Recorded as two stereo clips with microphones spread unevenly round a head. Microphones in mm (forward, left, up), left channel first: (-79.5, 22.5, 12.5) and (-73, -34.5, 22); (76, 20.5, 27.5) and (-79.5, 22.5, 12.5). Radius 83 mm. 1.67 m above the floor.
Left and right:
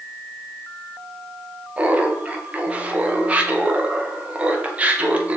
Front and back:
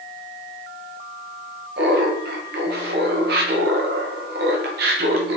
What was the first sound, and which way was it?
Laughter, 150° right.